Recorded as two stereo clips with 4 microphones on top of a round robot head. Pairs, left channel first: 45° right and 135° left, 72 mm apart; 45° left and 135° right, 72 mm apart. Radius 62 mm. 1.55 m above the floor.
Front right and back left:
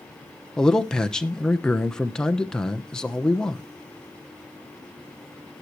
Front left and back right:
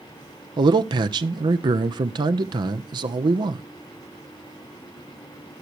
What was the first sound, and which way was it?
A man speaking, 125° right.